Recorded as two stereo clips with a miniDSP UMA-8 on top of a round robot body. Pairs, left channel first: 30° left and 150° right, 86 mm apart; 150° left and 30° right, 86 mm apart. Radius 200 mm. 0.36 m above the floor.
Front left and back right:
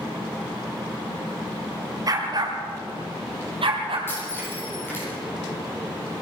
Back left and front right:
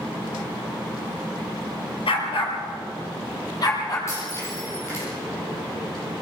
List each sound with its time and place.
2.1 s a dog barking: 160° left, 2.5 m; by 4.0 s 165° right, 4 m
4.1 s breaking glass: 95° left, 10 m